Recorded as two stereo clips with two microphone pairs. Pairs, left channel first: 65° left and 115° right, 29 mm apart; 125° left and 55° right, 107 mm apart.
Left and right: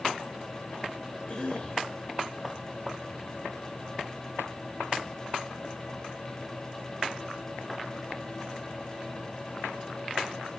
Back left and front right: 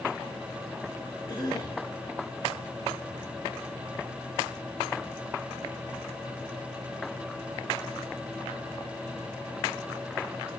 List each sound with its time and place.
1.3 s a cough: 105° left, 2 m